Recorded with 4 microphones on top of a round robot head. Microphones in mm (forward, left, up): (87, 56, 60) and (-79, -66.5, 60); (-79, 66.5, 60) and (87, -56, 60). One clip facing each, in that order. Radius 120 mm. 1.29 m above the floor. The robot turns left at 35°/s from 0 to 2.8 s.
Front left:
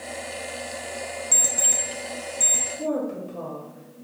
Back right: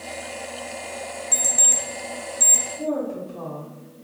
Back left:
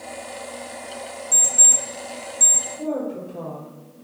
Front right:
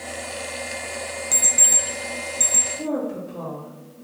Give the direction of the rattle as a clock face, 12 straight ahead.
I don't hear a rattle.